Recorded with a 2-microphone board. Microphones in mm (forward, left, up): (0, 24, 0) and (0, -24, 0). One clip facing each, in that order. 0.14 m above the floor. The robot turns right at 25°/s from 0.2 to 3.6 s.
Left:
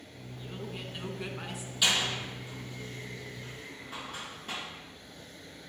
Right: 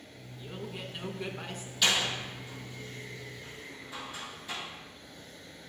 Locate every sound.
0.4 s a man speaking: 5° right (ahead or behind), 1.1 m; by 1.7 s 10° left (ahead or behind), 1.1 m
1.8 s a door slam: 5° left (ahead or behind), 3.5 m; by 4.6 s 50° left (ahead or behind), 3.5 m